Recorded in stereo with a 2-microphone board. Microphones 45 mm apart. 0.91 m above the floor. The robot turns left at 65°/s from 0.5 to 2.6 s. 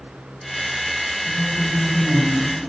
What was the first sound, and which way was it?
A woman speaking, 70° left.